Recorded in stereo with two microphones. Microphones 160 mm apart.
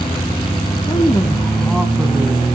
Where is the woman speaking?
30° left (ahead or behind), 1.4 m; by 2.5 s 15° right (ahead or behind), 1.6 m.